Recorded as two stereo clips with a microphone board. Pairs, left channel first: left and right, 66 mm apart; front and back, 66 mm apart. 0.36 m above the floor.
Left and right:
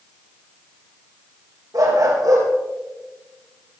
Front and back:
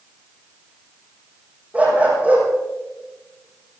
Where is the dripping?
No dripping in this recording.